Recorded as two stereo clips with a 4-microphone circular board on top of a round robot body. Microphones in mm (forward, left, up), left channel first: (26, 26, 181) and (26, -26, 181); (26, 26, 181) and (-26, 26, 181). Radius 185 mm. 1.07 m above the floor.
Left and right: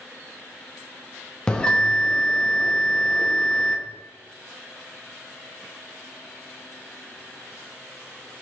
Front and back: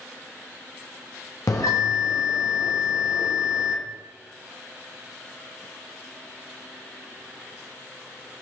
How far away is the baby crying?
I don't hear a baby crying.